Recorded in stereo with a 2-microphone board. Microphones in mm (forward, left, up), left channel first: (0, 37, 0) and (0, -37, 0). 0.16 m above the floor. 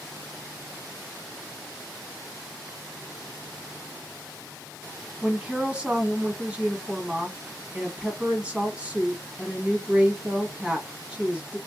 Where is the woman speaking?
15° right (ahead or behind), 1.0 m.